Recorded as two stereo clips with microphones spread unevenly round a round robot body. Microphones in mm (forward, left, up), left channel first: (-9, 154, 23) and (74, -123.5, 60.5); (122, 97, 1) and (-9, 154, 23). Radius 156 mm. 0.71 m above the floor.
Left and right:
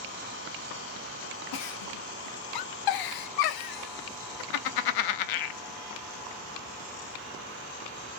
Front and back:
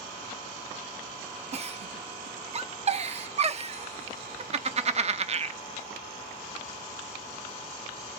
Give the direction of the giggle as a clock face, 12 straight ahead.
9 o'clock.